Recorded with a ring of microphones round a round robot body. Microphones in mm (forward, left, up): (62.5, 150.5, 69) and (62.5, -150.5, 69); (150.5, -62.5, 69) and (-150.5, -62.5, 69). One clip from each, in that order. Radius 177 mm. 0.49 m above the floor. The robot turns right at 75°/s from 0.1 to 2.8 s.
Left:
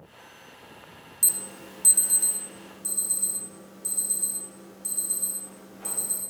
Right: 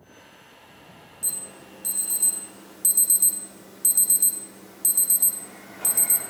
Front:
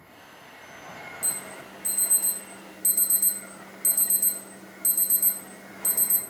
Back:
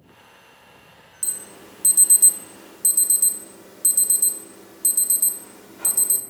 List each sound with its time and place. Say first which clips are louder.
1.2 s an alarm: left 5 dB, back 3 dB; 115° left, 0.8 m; by 6.2 s 125° right, 0.8 m